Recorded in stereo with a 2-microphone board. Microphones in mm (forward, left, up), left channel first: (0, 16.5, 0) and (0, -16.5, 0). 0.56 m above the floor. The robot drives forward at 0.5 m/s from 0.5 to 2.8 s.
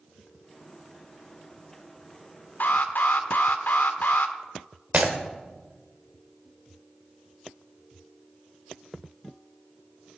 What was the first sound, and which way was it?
An alarm, 60° left (ahead or behind).